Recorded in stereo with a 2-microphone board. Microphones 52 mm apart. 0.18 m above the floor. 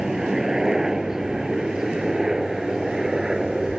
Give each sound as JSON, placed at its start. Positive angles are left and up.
{"t": 0.0, "sound": "a helicopter", "side_deg": -10}